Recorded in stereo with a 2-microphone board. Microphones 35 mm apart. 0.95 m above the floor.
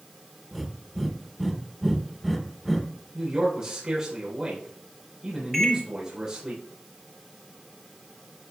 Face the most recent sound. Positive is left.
turn(degrees=10)  # may be behind; listen again after turning